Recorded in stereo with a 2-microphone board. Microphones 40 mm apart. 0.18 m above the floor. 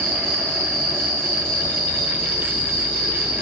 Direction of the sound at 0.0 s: 20° left (ahead or behind).